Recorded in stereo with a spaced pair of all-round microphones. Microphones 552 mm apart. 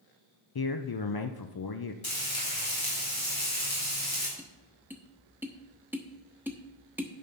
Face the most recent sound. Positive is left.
turn(degrees=-5)  # may be behind; listen again after turning